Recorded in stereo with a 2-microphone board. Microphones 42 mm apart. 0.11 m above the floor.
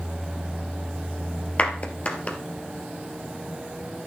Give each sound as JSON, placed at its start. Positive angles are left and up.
{"t": 1.6, "sound": "a clap", "side_deg": 35, "distance_m": 2.0}